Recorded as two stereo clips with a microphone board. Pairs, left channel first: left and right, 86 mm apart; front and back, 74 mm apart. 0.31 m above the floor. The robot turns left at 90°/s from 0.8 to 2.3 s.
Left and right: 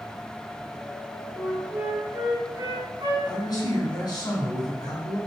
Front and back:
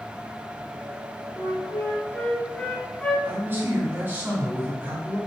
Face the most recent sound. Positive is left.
turn(degrees=120)